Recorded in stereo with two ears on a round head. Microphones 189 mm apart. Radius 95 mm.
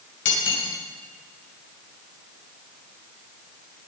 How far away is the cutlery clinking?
About 3 m.